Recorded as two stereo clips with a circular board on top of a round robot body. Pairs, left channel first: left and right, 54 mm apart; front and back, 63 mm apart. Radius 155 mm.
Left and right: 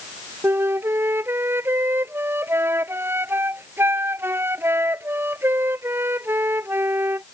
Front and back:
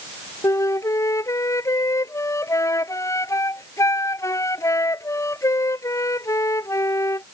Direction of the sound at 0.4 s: 40° right.